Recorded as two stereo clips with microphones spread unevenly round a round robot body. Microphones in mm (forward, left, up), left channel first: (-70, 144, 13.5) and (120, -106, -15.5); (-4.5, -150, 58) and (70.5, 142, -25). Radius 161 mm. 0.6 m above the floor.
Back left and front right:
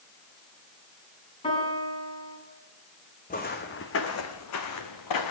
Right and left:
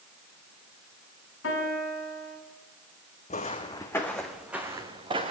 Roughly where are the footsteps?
Behind.